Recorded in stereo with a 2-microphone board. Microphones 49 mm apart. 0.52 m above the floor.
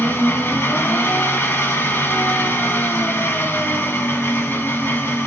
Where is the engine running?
45° left (ahead or behind), 1.4 m.